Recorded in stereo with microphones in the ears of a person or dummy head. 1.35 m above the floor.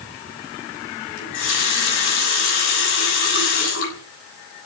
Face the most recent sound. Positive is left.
turn(degrees=70)  # may be behind; listen again after turning